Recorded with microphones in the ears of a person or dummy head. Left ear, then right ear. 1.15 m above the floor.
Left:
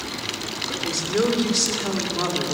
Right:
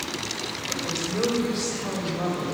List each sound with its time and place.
0.7 s a woman speaking: 60° left (ahead or behind), 3 m